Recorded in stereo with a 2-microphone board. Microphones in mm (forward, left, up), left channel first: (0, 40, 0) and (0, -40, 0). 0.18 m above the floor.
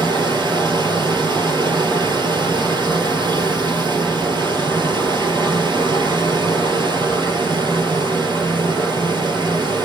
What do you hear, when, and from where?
0.0 s running water: 75° right (ahead or behind), 2.5 m